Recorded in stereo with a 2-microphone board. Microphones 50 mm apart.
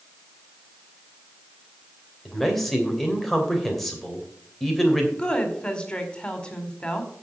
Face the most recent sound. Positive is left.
turn(degrees=20)  # may be behind; listen again after turning